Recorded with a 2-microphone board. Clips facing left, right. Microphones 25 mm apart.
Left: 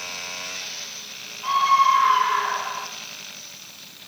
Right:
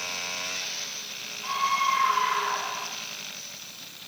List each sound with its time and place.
1.4 s a scream: 45° left (ahead or behind), 5.5 m; by 2.9 s 40° left (ahead or behind), 4.5 m